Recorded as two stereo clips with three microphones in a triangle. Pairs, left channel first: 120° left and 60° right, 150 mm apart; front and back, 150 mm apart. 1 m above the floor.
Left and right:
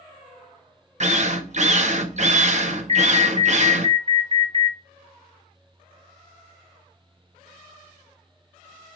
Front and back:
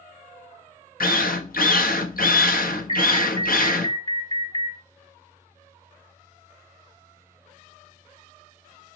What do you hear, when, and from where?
1.0 s a drill: 20° right, 0.9 m
2.9 s an alarm: 35° right, 1.0 m